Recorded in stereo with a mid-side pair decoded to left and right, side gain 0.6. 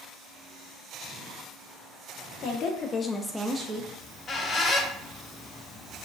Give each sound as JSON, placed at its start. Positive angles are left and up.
{"t": 2.4, "sound": "a woman speaking", "azimuth_deg": 65, "distance_m": 0.8}
{"t": 4.0, "sound": "a squeak", "azimuth_deg": 35, "distance_m": 0.6}